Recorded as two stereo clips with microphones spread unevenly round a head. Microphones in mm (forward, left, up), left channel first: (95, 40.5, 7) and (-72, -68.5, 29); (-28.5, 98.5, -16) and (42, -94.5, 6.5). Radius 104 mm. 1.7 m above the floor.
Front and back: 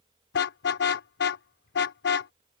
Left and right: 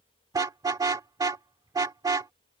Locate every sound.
0.3 s a car horn: straight ahead